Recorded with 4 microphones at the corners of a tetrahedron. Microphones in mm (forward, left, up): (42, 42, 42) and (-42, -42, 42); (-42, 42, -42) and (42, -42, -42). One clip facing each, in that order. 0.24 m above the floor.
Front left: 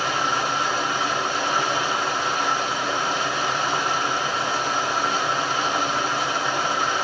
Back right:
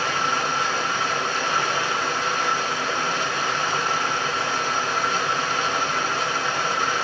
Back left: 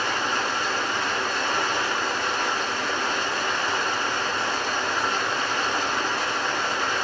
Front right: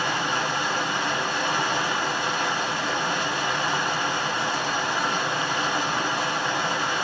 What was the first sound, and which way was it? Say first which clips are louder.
Running water: front left 1 dB, even; 5° right.